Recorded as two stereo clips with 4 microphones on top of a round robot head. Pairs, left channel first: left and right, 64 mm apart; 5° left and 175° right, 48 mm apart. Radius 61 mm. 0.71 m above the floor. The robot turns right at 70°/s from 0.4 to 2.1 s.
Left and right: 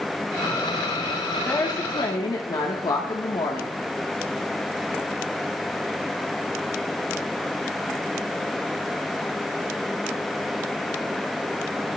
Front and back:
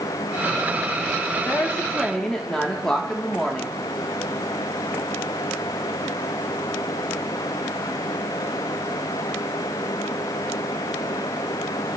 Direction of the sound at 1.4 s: 35° left.